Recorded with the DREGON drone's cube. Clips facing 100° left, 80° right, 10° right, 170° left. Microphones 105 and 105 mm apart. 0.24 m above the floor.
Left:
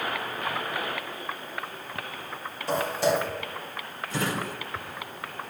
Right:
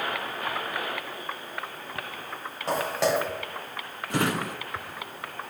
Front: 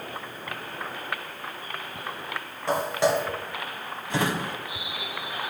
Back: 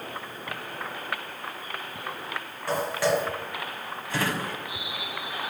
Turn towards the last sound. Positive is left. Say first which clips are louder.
# right 3 dB, front 2 dB
turn(degrees=-80)